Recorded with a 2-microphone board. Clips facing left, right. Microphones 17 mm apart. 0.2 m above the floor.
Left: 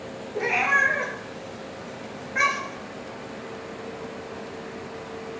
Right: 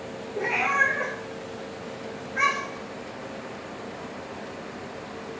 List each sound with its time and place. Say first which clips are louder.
0.3 s a cat meowing: left 2 dB; 60° left (ahead or behind), 1.1 m